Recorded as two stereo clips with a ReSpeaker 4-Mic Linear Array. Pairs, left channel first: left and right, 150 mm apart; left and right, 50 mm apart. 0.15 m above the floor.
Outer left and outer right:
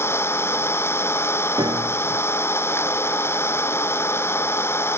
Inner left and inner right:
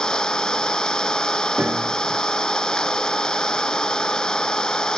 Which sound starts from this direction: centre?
An engine running, at 0.0 s.